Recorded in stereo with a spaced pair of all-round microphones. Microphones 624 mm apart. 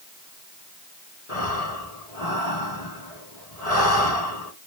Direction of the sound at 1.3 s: 70° left (ahead or behind).